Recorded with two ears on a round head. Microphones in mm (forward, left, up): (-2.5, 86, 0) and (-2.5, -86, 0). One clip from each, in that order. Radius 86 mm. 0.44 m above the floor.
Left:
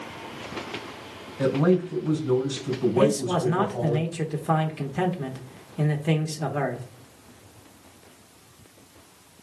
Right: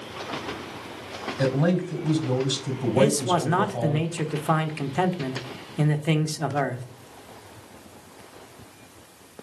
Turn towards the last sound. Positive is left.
turn(degrees=-20)  # may be behind; listen again after turning